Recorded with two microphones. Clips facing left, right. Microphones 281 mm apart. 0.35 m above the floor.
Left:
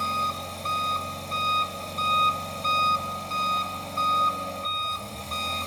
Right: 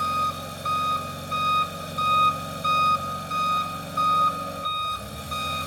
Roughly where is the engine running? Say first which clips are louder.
Right 1 dB; centre.